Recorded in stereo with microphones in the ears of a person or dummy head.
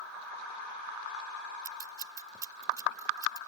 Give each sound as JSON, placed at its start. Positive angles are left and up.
{"t": 1.6, "sound": "scissors", "side_deg": -20}